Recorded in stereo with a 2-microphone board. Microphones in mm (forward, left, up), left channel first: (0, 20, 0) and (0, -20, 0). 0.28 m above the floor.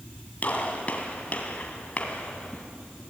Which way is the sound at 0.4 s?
35° left (ahead or behind).